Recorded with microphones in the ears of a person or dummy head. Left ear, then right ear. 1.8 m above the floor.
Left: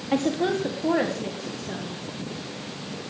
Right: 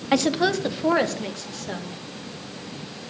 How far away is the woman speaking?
About 1.1 m.